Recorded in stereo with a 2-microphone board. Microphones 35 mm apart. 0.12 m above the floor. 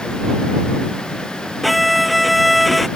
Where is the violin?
5° right (ahead or behind).